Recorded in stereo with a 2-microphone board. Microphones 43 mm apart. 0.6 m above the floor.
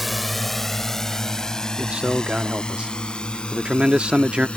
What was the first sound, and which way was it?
A drone, 5° right (ahead or behind).